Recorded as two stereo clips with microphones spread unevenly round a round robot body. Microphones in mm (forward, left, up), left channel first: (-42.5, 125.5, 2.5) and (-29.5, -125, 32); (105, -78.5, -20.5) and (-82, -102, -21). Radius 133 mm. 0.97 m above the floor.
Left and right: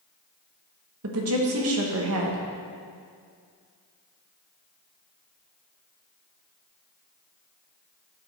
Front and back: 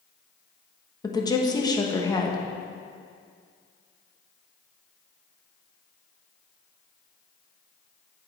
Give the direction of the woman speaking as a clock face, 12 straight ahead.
2 o'clock.